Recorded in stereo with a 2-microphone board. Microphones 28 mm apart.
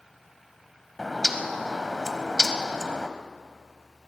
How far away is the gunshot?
No gunshot in this recording.